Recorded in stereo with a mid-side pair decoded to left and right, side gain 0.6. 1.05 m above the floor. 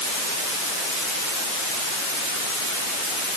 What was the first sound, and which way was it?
Only background noise.